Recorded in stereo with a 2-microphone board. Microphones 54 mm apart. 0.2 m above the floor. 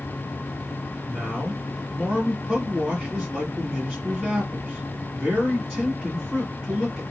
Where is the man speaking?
Centre (ahead or behind), 1.9 m.